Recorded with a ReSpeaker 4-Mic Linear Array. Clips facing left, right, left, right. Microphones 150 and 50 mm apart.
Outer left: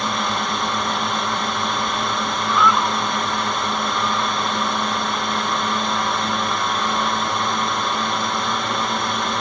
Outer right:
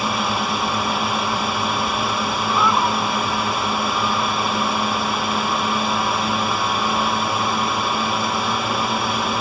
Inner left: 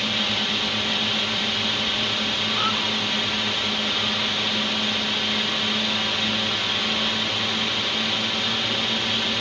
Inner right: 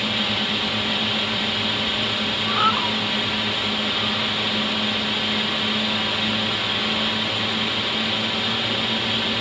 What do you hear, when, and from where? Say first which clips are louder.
0.0 s a drone: outer right 1 dB, inner right 1 dB; 5° right (ahead or behind)
2.5 s a cat meowing: outer left 1 dB, inner right 7 dB; 30° right (ahead or behind)